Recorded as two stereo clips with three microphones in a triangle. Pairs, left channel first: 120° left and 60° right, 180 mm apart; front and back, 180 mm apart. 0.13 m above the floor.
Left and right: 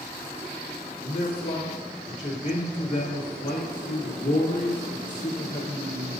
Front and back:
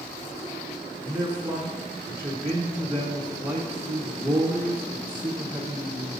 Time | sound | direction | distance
1.0 | a man speaking | 125° left | 1.3 m